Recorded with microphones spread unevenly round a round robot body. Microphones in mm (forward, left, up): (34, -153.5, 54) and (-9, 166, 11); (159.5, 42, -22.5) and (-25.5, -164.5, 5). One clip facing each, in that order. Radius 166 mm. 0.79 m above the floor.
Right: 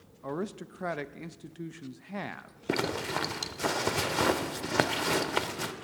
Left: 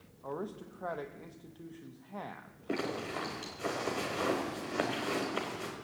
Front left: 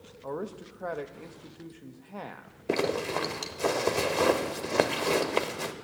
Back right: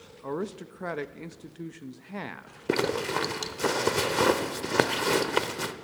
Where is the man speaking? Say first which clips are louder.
Right 5 dB, back right 3 dB; 85° right, 0.7 m.